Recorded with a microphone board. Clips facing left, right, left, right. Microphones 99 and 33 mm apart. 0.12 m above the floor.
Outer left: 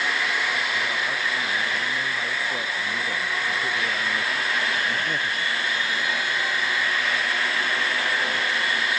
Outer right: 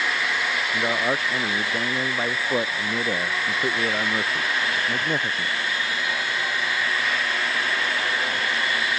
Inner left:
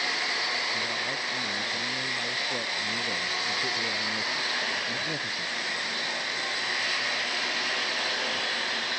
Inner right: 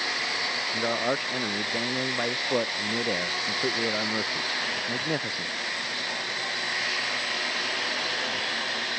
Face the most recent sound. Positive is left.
turn(degrees=-30)  # may be behind; listen again after turning